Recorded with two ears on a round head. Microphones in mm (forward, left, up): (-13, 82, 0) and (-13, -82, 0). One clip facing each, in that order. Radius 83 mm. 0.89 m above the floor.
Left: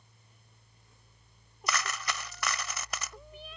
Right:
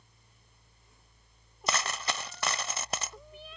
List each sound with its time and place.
1.7 s a dropped coin: 25° right (ahead or behind)